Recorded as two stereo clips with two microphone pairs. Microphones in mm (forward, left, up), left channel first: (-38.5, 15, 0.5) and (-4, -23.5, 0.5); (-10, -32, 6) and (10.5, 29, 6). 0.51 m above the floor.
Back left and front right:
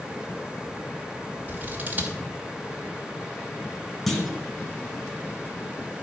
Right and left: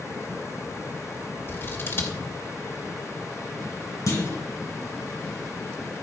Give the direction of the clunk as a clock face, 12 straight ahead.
5 o'clock.